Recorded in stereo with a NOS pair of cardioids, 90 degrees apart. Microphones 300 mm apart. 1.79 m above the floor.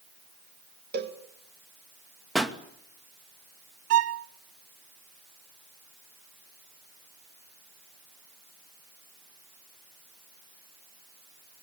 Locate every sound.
0.9 s a cowbell: 35° right, 2 m
2.4 s a pop: straight ahead, 2.5 m
3.9 s a violin: 55° right, 0.9 m